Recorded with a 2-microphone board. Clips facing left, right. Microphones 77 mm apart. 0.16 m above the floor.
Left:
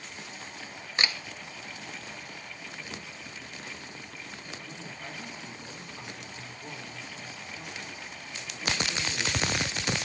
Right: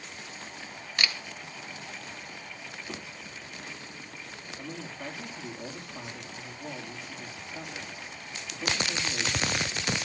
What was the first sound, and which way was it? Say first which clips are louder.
A camera shutter: left 1 dB; 25° left (ahead or behind).